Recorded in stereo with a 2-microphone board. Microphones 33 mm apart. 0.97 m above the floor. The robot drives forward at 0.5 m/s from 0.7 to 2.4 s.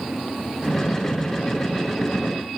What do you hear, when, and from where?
Only background noise.